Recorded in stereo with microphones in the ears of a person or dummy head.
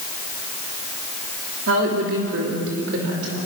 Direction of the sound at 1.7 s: 80° right.